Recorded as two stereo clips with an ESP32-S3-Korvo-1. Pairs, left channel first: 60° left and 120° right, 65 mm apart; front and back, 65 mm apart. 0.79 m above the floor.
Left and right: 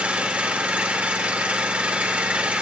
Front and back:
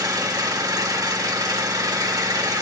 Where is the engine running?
170° left, 1.9 m.